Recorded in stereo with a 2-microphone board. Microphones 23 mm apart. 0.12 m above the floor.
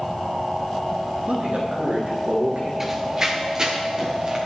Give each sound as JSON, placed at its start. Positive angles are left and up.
{"t": 1.3, "sound": "a man speaking", "side_deg": -75, "distance_m": 4.0}
{"t": 2.8, "sound": "running footsteps", "side_deg": -15, "distance_m": 1.8}